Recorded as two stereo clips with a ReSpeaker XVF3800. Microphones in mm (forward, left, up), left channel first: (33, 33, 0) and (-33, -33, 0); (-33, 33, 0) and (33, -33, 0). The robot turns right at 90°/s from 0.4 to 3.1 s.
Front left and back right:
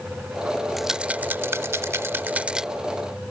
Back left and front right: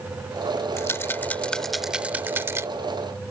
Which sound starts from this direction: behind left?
A rattle, at 0.8 s.